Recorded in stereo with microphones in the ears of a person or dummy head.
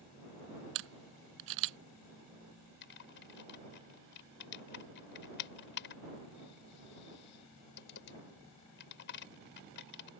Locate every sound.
0.8 s a camera shutter: 65° right (ahead or behind)
2.8 s typing on a keyboard: 60° left (ahead or behind)